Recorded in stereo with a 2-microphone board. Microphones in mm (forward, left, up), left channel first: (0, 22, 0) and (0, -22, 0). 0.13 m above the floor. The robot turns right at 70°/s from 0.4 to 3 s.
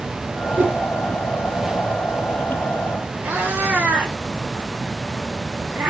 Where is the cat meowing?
30° right (ahead or behind), 5.5 m.